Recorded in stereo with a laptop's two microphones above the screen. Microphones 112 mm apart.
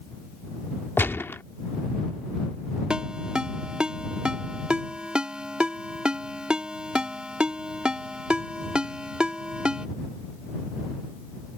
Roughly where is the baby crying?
No baby crying in this recording.